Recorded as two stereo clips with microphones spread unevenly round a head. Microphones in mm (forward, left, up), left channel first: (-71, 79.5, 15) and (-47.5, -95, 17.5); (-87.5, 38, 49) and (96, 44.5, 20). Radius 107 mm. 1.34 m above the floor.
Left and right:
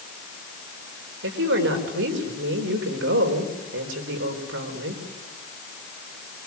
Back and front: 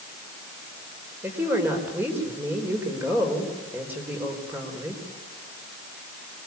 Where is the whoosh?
No whoosh in this recording.